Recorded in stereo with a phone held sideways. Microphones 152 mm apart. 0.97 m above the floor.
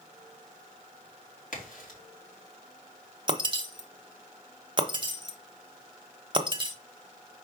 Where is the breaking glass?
35° right (ahead or behind), 0.9 m.